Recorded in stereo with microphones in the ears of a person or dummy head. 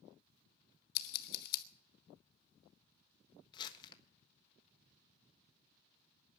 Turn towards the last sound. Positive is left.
turn(degrees=25)  # may be behind; listen again after turning